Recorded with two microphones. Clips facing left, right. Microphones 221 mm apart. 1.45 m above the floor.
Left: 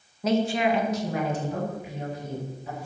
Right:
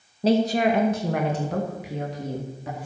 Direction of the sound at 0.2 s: 30° right (ahead or behind).